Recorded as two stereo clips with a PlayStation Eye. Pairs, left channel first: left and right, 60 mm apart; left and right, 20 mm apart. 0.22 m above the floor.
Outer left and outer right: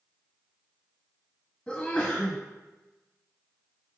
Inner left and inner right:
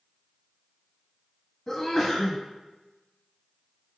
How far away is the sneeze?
About 1.4 m.